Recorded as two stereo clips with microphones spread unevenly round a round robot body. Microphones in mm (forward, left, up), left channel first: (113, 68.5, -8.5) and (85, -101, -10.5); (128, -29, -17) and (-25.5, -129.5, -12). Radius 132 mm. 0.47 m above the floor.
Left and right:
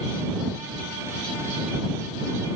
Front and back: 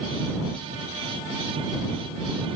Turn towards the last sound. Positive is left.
No sound to turn to.